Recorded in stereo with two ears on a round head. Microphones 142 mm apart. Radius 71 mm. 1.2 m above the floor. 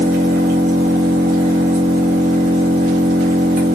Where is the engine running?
60° right (ahead or behind), 1.3 m.